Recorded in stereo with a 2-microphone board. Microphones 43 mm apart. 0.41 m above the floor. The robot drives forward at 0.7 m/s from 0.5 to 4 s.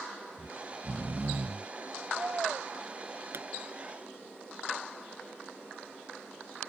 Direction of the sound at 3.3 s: 75° right (ahead or behind).